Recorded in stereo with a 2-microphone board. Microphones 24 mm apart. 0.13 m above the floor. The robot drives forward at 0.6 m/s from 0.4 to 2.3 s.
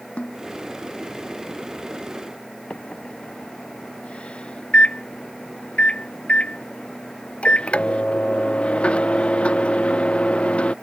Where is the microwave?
55° left (ahead or behind).